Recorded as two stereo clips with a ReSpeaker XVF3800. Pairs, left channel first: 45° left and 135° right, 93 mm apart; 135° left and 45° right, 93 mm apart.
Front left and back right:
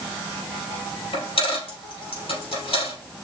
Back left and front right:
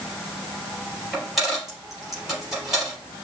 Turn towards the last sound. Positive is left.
turn(degrees=40)